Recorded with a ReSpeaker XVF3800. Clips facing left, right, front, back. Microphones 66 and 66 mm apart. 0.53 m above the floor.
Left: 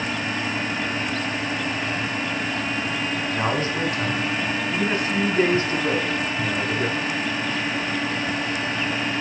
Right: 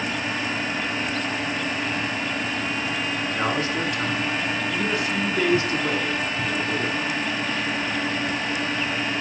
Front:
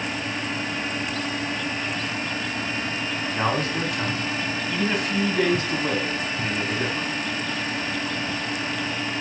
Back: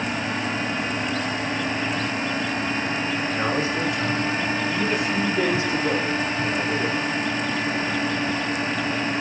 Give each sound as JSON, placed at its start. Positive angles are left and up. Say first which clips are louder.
{"t": 3.3, "sound": "a man speaking", "louder": "left 1 dB, front 2 dB", "azimuth_deg": 35, "distance_m": 4.0}